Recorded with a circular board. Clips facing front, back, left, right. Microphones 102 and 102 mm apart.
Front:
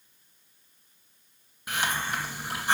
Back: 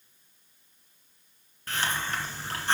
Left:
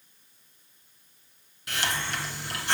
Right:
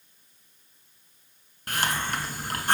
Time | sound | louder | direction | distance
1.7 | a hiss | front 1 dB, right 3 dB | 70° right | 2 m